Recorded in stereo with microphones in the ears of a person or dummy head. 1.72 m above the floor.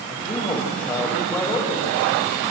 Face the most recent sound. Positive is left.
turn(degrees=10)  # may be behind; listen again after turning